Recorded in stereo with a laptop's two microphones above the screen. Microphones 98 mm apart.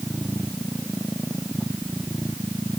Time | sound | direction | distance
0.0 | a machine running | 5° left (ahead or behind) | ?